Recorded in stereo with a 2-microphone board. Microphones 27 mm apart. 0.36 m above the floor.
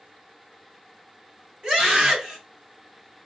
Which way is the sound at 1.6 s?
30° right (ahead or behind).